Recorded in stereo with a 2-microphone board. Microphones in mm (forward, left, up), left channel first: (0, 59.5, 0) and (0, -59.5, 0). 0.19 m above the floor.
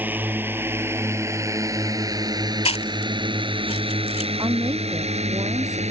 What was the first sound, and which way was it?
A drone, 15° right (ahead or behind).